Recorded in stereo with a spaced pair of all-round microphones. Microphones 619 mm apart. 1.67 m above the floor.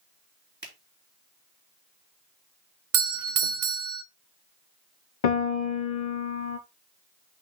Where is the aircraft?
No aircraft in this recording.